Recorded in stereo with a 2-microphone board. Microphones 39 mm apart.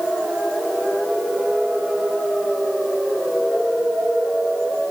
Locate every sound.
Only background noise.